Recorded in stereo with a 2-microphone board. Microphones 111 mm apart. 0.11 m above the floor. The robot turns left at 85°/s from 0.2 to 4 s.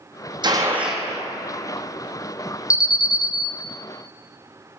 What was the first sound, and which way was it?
A gunshot, 135° right.